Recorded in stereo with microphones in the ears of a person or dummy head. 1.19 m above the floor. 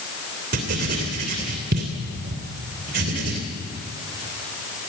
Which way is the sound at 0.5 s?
50° right (ahead or behind).